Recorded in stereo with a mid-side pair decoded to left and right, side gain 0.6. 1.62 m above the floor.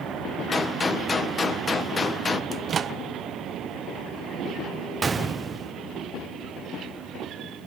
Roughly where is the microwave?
Ahead right.